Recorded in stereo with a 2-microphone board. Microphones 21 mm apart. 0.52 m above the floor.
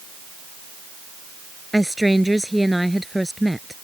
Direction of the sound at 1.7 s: 5° right (ahead or behind).